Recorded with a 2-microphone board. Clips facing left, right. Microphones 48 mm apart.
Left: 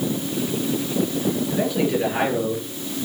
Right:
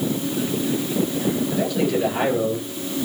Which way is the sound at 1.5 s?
20° left (ahead or behind).